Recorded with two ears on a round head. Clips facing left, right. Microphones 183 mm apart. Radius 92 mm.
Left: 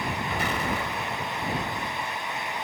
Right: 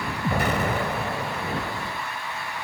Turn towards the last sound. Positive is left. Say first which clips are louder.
# right 8 dB
turn(degrees=-45)  # may be behind; listen again after turning